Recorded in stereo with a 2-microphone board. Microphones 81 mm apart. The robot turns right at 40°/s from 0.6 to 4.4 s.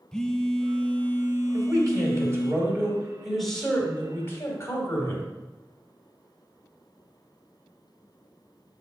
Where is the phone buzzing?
10° left, 0.6 m; by 2.5 s 90° left, 0.6 m.